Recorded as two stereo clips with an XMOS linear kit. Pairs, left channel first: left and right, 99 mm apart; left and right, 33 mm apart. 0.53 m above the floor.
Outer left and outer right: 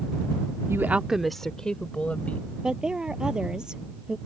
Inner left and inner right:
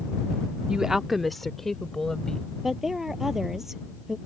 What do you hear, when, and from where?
0.7 s a woman speaking: 25° right (ahead or behind); by 2.5 s 15° left (ahead or behind)
2.6 s a woman speaking: 10° right (ahead or behind)